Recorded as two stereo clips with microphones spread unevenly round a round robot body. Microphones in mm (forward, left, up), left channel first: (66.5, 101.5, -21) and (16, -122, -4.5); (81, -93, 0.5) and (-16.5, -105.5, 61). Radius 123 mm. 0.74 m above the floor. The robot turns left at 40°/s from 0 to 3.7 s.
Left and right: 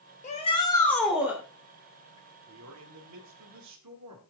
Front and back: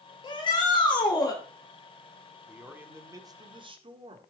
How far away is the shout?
About 2.5 m.